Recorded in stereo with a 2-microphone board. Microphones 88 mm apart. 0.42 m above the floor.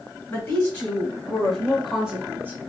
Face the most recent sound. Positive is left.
turn(degrees=-30)  # may be behind; listen again after turning